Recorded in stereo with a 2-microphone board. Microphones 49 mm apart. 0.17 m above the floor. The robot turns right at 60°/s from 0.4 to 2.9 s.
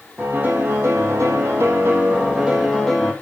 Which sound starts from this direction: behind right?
A piano, at 0.2 s.